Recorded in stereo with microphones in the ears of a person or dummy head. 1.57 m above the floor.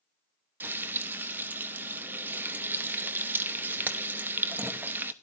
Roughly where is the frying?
Centre.